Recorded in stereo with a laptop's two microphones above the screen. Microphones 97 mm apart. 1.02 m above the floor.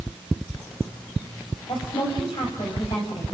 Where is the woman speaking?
60° left (ahead or behind), 7.5 m.